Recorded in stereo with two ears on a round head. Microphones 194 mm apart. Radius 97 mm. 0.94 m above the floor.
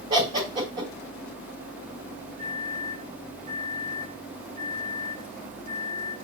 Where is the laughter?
25° right (ahead or behind), 3 m.